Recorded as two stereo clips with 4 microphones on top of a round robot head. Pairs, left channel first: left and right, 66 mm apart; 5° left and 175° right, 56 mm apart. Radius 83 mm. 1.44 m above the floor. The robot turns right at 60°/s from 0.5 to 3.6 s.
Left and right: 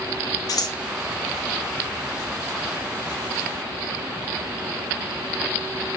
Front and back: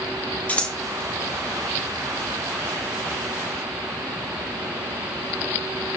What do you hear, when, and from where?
0.5 s scissors: 65° left, 1.3 m; by 0.8 s 80° left, 1.3 m